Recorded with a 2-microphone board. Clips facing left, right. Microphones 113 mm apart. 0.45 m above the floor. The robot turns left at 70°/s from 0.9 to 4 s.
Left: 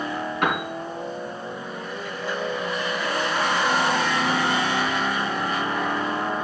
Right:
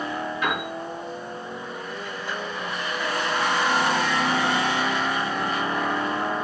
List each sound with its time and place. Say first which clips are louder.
0.4 s a piano: left 4 dB; 70° left (ahead or behind), 3.5 m